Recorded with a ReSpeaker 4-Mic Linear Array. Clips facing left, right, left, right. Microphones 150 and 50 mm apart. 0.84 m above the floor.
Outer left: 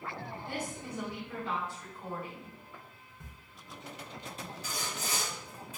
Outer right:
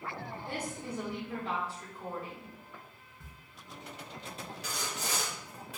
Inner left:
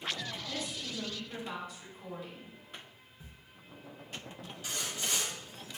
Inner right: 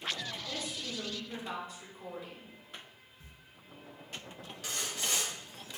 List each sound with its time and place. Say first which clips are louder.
0.5 s a woman speaking: outer right 1 dB, even; 30° right (ahead or behind), 1.2 m
3.2 s a camera shutter: outer left 3 dB, inner left 5 dB; 15° left (ahead or behind), 0.5 m
4.6 s sawing: outer right 1 dB, inner right 1 dB; 65° right (ahead or behind), 0.9 m